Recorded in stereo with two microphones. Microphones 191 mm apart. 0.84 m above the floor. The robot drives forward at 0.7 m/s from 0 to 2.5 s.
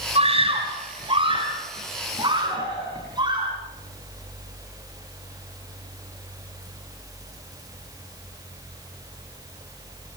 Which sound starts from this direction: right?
A scream, at 0.1 s.